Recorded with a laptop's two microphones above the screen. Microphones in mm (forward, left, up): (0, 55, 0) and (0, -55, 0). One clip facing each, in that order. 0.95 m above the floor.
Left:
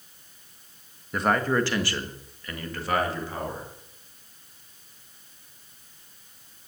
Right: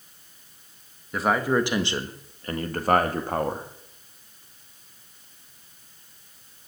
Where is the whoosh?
No whoosh in this recording.